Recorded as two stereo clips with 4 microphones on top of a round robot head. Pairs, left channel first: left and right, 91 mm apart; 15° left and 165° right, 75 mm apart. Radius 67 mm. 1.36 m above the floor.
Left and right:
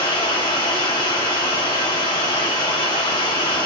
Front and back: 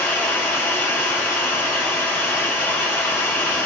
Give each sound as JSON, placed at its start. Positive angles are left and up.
{"t": 0.0, "sound": "running water", "azimuth_deg": 70, "distance_m": 1.1}